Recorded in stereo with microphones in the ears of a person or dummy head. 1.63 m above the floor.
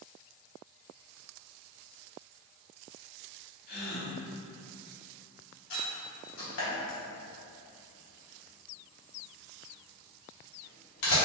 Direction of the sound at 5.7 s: 70° left (ahead or behind).